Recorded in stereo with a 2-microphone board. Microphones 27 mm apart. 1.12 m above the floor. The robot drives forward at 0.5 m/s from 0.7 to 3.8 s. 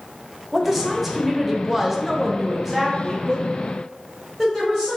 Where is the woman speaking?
5° right (ahead or behind), 0.9 m.